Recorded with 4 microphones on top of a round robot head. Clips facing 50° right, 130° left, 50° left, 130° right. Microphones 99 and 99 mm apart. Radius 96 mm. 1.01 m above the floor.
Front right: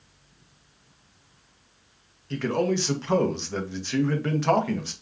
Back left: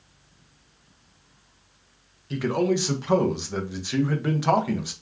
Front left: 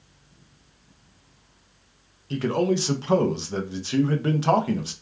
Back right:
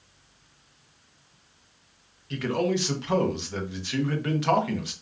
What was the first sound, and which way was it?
A man speaking, 60° left.